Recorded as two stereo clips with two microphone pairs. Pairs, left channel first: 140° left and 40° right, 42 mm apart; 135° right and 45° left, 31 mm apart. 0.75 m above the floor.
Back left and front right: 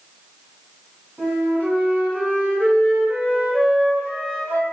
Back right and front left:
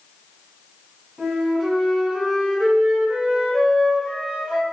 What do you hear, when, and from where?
1.2 s a flute: 60° right, 1.1 m